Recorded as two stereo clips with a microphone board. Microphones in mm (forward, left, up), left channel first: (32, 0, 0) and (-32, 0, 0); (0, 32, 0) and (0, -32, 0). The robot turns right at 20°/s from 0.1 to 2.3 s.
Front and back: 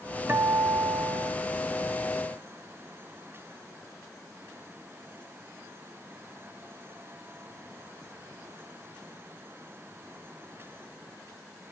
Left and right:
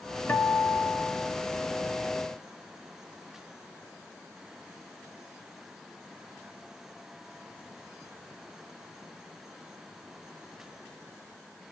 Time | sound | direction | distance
0.3 | a guitar | 135° left | 1.4 m